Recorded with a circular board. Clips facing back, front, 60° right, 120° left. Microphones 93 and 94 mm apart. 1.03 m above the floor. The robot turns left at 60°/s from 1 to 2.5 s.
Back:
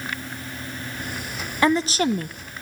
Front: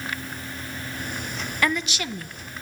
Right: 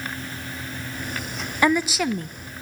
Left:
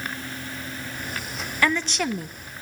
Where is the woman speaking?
125° right, 0.9 m; by 2.4 s 170° right, 0.9 m.